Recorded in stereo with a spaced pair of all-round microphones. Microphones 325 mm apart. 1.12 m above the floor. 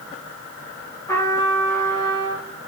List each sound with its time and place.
1.1 s a trumpet: 10° left (ahead or behind), 2.5 m